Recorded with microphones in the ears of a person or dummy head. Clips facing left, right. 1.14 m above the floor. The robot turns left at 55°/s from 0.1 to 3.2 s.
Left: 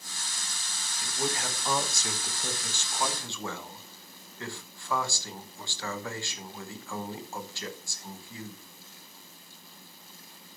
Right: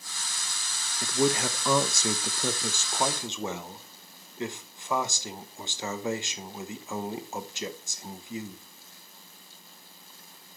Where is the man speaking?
40° right, 0.7 m; by 8.6 s 160° right, 0.7 m.